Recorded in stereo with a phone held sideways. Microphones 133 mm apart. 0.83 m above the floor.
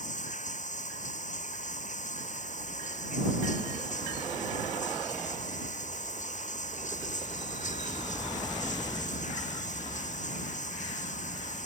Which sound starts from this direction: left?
Running water, at 0.0 s.